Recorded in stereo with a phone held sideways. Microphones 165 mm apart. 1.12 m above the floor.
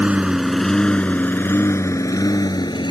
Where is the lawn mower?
10° right (ahead or behind); by 2.9 s 30° left (ahead or behind).